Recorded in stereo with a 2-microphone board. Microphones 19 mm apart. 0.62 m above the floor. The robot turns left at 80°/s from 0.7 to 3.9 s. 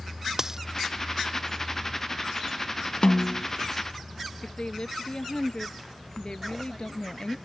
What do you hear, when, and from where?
0.4 s a dropped coin: 30° right (ahead or behind)
3.0 s a snare drum: 100° left; by 3.5 s 65° left
4.4 s a woman speaking: 55° left (ahead or behind)